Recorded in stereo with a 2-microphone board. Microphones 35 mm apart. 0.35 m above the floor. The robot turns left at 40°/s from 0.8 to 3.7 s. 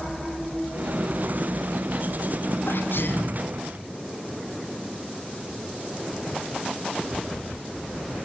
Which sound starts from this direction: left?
A sneeze, at 2.6 s.